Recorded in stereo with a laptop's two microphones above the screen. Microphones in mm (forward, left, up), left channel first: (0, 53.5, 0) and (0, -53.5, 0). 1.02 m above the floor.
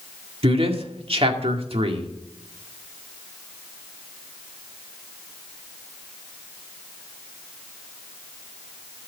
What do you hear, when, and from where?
0.4 s a man speaking: 60° right (ahead or behind), 2 m